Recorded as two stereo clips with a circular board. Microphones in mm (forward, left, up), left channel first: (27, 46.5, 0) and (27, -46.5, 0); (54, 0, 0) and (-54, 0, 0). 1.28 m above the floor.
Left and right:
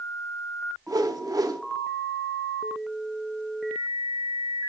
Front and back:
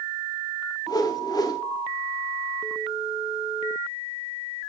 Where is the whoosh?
50° right, 0.7 m.